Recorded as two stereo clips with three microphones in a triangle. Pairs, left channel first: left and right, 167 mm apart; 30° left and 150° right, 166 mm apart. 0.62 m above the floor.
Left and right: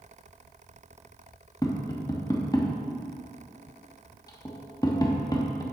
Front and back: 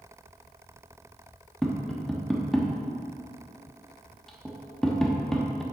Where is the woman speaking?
No woman speaking in this recording.